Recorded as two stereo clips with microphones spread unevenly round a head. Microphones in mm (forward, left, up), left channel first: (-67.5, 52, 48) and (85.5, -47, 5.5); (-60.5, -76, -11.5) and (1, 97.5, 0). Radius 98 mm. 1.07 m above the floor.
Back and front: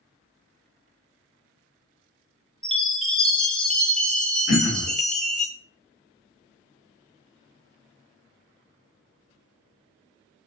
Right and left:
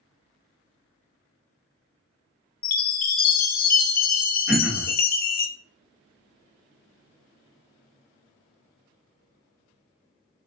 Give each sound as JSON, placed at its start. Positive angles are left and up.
{"t": 2.6, "sound": "a chime", "azimuth_deg": -140, "distance_m": 0.5}
{"t": 4.5, "sound": "throat clearing", "azimuth_deg": 160, "distance_m": 1.2}